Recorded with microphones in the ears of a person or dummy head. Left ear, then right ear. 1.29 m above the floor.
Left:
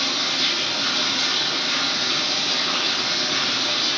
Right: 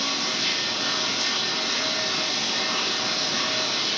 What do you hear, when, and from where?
0.0 s running water: 55° left (ahead or behind), 2 m